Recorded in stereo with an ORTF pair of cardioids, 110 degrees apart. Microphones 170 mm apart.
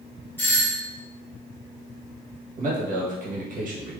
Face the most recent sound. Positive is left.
turn(degrees=-50)